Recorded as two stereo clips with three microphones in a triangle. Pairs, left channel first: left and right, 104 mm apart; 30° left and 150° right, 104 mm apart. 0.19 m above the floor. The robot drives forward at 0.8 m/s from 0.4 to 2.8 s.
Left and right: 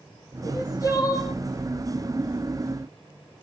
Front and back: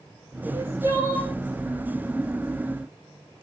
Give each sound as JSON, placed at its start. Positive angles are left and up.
{"t": 0.4, "sound": "crying", "azimuth_deg": 145, "distance_m": 6.5}